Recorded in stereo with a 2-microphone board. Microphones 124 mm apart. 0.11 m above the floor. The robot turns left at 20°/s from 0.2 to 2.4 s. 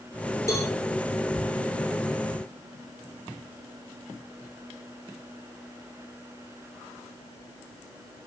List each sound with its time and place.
0.5 s a cowbell: 25° left (ahead or behind), 3 m; by 0.7 s 20° left (ahead or behind), 3 m